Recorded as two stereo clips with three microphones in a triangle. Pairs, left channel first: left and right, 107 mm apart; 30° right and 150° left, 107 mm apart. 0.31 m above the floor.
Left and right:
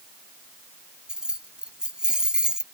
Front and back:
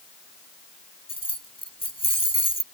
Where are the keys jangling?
10° right.